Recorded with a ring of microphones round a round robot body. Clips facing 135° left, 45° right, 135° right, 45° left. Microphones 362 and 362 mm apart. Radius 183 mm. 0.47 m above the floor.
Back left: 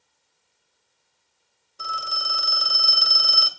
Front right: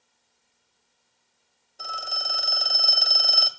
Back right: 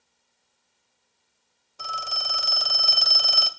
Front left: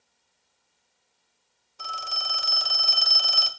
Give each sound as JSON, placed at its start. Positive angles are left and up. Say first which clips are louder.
{"t": 1.8, "sound": "a phone ringing", "louder": "back left 1 dB, back right 3 dB", "azimuth_deg": -145, "distance_m": 1.6}